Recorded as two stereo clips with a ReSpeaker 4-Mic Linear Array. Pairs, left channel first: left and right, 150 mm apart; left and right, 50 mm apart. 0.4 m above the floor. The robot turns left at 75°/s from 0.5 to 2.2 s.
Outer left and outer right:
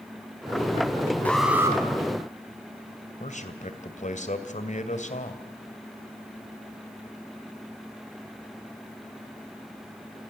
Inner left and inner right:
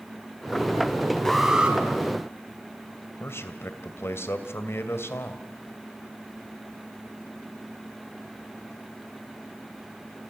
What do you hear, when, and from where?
1.2 s an alarm: 10° left, 4.5 m; by 1.8 s 30° right, 4.5 m
3.2 s a man speaking: 55° left (ahead or behind), 2.5 m